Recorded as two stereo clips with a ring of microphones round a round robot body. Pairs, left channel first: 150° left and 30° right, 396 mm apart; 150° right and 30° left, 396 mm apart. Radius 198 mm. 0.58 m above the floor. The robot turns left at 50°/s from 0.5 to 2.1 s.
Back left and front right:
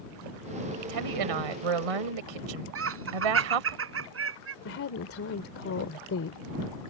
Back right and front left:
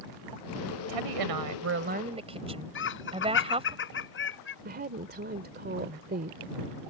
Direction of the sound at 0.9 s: 15° left.